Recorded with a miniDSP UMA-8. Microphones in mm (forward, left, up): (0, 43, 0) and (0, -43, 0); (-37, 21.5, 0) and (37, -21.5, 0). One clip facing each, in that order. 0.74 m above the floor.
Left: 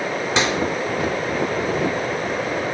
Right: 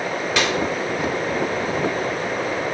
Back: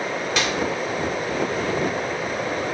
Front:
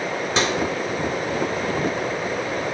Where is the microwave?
25° left, 2.0 m.